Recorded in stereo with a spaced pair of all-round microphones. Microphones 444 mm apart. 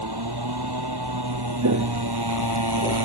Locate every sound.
0.0 s a motorcycle: 60° right (ahead or behind)
1.6 s footsteps: 40° right (ahead or behind); by 3.0 s 15° right (ahead or behind)